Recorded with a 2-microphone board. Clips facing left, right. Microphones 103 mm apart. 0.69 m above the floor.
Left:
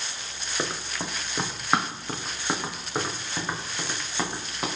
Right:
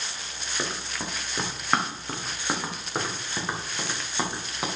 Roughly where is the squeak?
I don't hear a squeak.